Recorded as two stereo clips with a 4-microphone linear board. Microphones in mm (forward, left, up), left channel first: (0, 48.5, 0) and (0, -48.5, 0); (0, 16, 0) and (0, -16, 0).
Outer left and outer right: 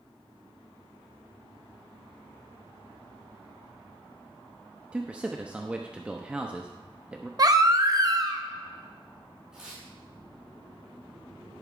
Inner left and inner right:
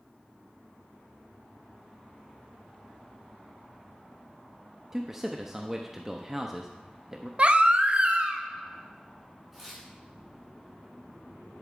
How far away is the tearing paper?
About 4 m.